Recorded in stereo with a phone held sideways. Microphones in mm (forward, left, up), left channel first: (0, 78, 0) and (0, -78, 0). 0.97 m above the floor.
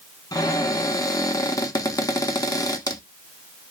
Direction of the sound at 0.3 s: 20° left (ahead or behind).